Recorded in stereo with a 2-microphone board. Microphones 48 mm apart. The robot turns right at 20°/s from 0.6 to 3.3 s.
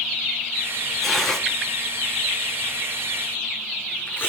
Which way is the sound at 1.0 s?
5° right (ahead or behind).